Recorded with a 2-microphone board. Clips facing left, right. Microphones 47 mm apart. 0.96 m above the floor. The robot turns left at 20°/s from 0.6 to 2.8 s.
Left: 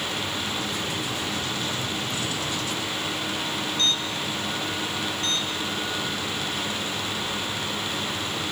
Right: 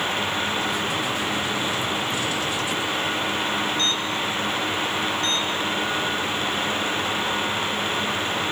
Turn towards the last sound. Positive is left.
No sound to turn to.